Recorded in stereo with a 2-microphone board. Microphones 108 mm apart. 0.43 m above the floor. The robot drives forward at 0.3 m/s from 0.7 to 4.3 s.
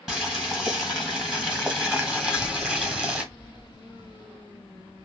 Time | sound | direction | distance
0.1 | boiling | 5° right (ahead or behind) | 1.6 m
2.2 | a child speaking | 25° right (ahead or behind) | 1.2 m